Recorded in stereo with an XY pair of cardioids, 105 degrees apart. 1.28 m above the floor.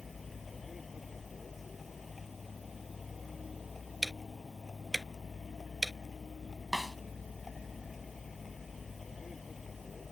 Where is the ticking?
5° right.